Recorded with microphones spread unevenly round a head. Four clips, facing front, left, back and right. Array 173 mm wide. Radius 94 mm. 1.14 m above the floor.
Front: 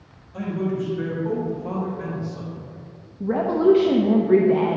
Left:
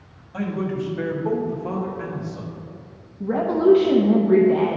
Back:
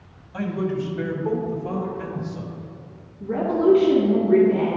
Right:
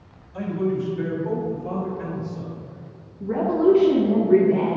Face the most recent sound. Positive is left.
turn(degrees=45)